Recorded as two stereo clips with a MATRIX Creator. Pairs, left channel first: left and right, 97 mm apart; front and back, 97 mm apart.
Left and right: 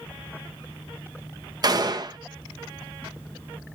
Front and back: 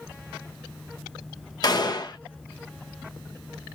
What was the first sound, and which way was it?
A gunshot, 45° right.